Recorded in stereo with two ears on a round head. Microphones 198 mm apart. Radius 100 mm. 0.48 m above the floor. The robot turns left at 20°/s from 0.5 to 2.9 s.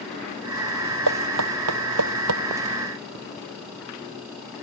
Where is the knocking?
80° right; by 2.4 s 75° right (ahead or behind).